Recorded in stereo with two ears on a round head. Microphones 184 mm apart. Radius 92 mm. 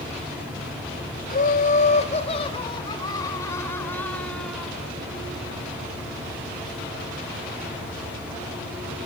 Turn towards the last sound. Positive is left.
turn(degrees=0)  # may be behind; listen again after turning